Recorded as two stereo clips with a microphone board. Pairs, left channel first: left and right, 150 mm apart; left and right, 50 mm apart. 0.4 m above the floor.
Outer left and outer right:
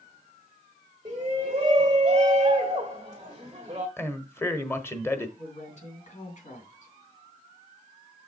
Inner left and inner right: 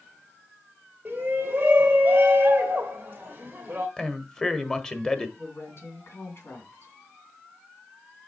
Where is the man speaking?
15° left (ahead or behind), 1.1 m.